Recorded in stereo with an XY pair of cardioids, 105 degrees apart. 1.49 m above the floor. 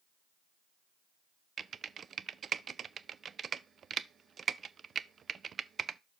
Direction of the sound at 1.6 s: 45° right.